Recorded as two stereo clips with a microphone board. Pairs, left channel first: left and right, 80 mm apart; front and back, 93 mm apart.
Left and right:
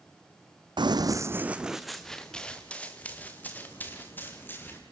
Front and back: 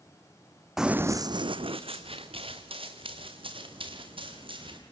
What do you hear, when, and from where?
0.8 s running footsteps: 95° right, 0.9 m; by 4.8 s 155° left, 5 m